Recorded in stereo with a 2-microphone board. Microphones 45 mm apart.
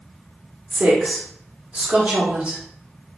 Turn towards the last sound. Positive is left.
turn(degrees=-30)  # may be behind; listen again after turning